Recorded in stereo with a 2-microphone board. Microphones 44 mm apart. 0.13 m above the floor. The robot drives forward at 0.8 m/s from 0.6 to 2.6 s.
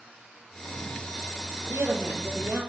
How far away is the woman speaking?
About 4.5 m.